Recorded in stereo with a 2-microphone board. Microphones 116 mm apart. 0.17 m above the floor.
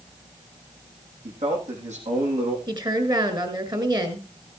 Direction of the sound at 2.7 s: 35° right (ahead or behind).